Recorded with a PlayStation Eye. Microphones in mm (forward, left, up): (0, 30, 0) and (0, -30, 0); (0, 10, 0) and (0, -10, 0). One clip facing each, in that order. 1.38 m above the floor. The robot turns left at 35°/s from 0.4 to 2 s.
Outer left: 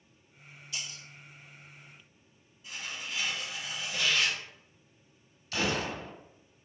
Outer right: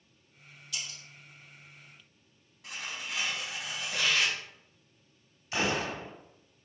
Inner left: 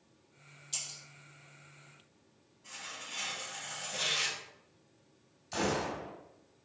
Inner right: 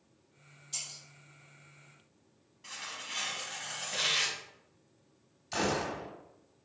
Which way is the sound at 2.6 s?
75° right (ahead or behind).